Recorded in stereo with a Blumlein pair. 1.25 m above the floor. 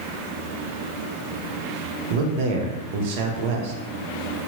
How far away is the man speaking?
About 0.6 m.